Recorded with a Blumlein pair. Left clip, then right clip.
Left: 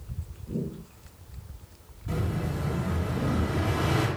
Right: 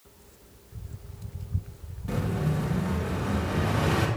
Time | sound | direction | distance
2.1 | an explosion | 10° right | 2 m